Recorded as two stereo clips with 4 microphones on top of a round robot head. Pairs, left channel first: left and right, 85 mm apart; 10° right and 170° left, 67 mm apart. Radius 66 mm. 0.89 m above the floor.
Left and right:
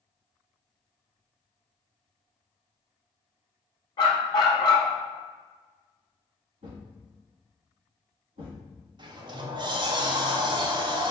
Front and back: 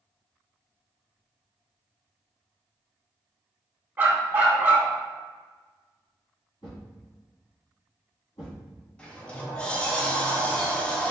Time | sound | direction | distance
4.0 | a dog barking | 110° left | 0.7 m
6.6 | a thud | 60° right | 1.8 m
9.0 | a sliding door | 85° right | 0.5 m